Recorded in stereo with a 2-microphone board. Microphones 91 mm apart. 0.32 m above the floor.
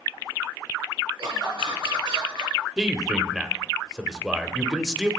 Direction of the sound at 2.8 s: 5° right (ahead or behind).